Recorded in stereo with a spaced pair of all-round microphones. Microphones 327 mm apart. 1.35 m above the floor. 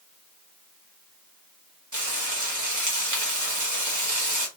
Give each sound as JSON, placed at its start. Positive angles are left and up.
{"t": 1.9, "sound": "frying", "side_deg": -65, "distance_m": 1.2}